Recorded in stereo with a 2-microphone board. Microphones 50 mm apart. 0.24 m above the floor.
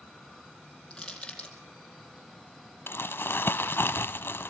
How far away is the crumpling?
About 0.8 m.